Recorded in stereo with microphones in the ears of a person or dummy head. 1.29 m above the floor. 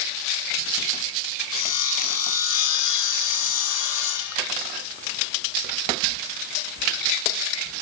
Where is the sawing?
85° left, 6.5 m.